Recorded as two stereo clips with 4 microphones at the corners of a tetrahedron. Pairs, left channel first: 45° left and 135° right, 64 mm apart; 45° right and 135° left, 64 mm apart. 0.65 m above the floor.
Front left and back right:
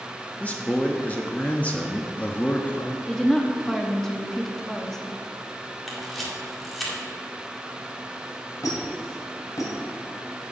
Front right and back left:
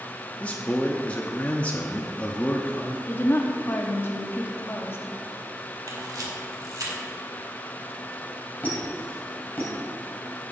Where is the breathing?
No breathing in this recording.